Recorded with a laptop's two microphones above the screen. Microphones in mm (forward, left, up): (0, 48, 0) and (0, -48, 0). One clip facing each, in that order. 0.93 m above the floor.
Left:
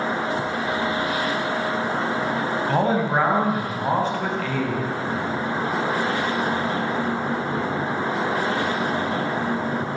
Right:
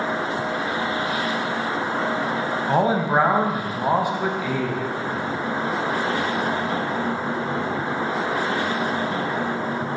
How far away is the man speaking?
About 0.6 m.